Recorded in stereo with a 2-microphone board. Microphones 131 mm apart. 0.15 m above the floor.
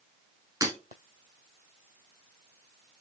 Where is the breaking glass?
25° right (ahead or behind), 1.0 m.